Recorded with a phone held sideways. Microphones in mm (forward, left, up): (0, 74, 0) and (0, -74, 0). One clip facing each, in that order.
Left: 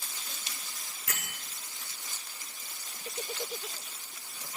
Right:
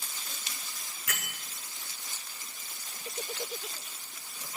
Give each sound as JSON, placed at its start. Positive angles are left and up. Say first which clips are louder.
{"t": 1.1, "sound": "a bell", "louder": "right 1 dB", "side_deg": 30, "distance_m": 1.8}